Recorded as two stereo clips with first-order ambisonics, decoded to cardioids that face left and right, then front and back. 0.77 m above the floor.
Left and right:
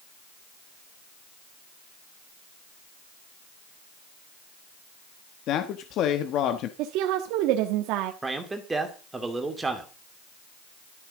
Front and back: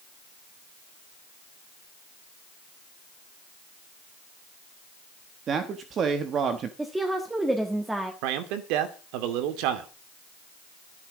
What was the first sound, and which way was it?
A man speaking, 125° left.